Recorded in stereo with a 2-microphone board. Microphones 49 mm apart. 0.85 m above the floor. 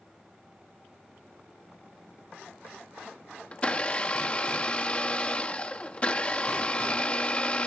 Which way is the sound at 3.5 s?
25° left (ahead or behind).